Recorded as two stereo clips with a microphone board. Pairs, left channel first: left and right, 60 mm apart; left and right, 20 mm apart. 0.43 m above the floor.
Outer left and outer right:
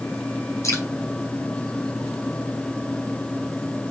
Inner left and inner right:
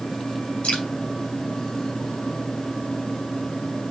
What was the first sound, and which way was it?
Dripping, 60° left (ahead or behind).